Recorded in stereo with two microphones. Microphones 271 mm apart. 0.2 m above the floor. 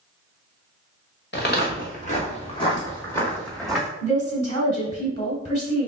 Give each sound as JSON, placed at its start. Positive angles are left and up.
{"t": 1.3, "sound": "footsteps", "side_deg": 40, "distance_m": 1.9}
{"t": 4.0, "sound": "a woman speaking", "side_deg": 25, "distance_m": 1.4}